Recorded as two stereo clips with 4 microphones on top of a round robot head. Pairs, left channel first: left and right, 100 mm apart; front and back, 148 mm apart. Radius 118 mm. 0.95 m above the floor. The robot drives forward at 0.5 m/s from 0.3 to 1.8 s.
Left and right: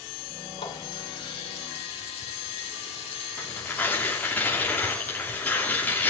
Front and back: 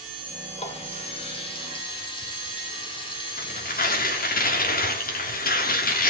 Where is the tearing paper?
15° left, 3 m.